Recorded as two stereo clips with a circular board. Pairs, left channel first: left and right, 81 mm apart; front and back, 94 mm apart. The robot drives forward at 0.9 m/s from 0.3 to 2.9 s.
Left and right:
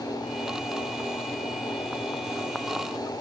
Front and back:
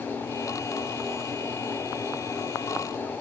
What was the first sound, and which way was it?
Only background noise.